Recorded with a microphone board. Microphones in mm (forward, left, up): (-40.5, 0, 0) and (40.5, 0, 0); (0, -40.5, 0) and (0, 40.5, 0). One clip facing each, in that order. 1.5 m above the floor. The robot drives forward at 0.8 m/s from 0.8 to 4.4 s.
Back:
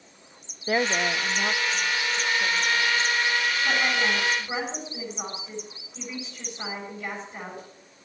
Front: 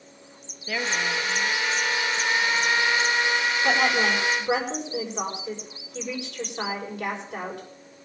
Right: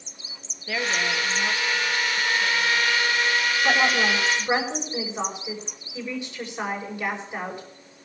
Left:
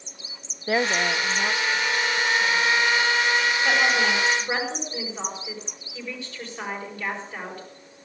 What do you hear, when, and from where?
0.7 s a woman speaking: 135° left, 0.7 m; by 3.0 s 170° left, 2 m
3.6 s a woman speaking: 15° right, 7 m